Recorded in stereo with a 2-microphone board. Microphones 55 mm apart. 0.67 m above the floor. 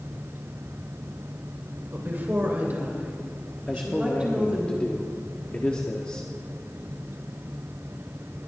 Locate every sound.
1.9 s a woman speaking: 40° right (ahead or behind), 3 m; by 4.7 s 20° right (ahead or behind), 5.5 m
3.7 s a man speaking: 20° left (ahead or behind), 1.3 m